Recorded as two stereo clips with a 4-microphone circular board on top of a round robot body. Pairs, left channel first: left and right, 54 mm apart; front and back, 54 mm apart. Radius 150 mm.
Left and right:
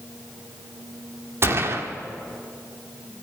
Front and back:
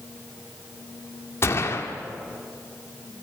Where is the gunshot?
50° right, 1.5 m.